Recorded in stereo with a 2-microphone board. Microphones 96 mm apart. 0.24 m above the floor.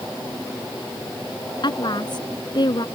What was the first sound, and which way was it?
A woman speaking, 50° left (ahead or behind).